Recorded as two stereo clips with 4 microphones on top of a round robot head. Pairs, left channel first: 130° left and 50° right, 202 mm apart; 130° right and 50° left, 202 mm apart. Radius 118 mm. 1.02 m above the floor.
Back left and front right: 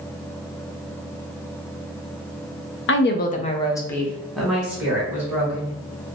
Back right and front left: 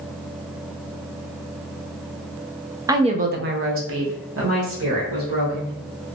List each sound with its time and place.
2.9 s a woman speaking: 125° left, 0.5 m; by 5.7 s 30° left, 1.9 m